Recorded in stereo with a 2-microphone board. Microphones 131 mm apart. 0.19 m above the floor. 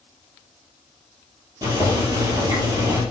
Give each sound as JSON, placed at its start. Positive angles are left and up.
{"t": 1.6, "sound": "boiling", "side_deg": -30, "distance_m": 1.9}